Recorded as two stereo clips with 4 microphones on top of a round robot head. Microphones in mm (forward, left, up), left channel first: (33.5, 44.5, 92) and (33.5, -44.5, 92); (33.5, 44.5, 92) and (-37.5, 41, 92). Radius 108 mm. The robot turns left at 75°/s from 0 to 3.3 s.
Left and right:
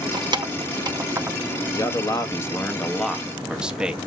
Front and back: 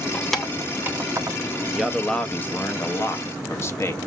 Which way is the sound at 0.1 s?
70° right.